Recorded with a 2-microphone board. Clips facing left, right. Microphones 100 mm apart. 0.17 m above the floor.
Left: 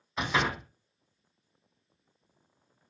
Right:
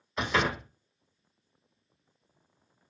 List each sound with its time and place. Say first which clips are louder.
0.2 s a door slam: right 1 dB; 5° left (ahead or behind), 0.9 m